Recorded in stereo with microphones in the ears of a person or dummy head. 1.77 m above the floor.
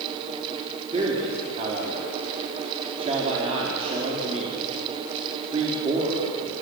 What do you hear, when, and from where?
0.9 s a man speaking: 30° right (ahead or behind), 4.5 m